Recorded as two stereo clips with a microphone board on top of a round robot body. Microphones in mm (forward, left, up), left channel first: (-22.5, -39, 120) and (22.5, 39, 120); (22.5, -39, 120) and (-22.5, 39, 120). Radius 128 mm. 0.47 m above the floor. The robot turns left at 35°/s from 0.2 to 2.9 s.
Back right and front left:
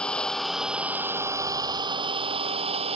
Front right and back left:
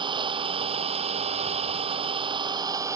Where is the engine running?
160° left; by 3.0 s 65° left.